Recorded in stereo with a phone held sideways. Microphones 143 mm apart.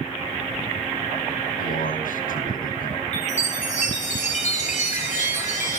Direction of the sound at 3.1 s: 55° left (ahead or behind).